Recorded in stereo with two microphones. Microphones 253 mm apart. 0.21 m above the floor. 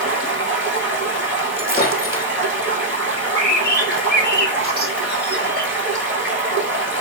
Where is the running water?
50° right (ahead or behind), 1.3 m.